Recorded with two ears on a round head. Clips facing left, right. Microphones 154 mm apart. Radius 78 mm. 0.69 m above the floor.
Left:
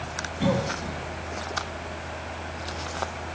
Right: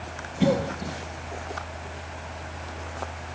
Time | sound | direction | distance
0.4 | a cough | 30° right (ahead or behind) | 1.1 m